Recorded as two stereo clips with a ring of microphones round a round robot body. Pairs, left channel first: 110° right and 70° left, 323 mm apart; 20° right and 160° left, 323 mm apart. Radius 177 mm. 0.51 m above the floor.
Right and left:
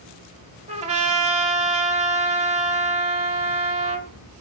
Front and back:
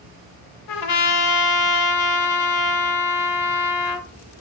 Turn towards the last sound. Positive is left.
turn(degrees=-5)